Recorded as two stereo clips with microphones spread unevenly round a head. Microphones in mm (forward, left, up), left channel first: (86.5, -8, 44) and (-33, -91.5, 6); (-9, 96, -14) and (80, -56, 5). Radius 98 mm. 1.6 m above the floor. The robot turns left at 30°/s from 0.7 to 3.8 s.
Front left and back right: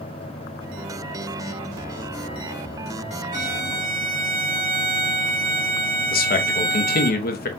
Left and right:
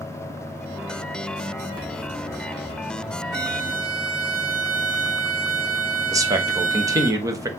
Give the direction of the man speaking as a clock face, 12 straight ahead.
12 o'clock.